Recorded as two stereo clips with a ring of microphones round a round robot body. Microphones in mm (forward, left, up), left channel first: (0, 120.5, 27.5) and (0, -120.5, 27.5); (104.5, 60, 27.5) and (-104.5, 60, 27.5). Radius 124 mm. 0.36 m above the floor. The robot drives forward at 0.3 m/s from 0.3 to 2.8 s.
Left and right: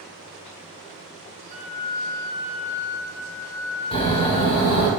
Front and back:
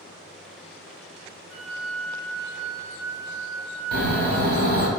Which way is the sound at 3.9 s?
150° left.